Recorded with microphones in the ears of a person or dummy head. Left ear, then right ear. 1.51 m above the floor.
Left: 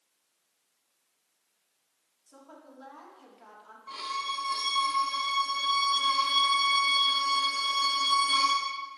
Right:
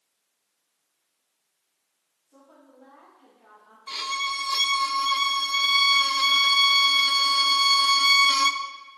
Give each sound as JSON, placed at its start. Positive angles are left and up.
{"t": 2.3, "sound": "a woman speaking", "side_deg": 60, "distance_m": 4.0}
{"t": 3.9, "sound": "a violin", "side_deg": -65, "distance_m": 0.6}